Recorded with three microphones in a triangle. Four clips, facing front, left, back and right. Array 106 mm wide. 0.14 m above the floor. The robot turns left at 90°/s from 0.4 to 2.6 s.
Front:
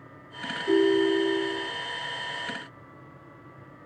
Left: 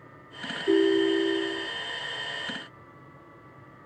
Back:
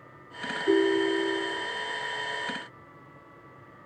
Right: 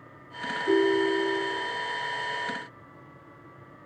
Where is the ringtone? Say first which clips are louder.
Left 1 dB, front 2 dB; 145° right, 2.5 m; by 1.7 s 125° left, 2.5 m.